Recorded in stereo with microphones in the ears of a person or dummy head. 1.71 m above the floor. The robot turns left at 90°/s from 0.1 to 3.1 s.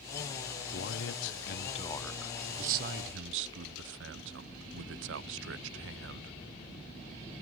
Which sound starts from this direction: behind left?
A man speaking, at 0.7 s.